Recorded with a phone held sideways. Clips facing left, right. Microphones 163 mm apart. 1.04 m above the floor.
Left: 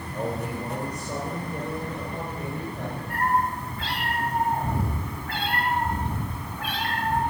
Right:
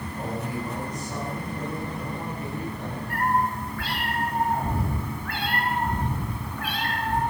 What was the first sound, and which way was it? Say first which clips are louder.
A man speaking: left 2 dB; 65° left (ahead or behind).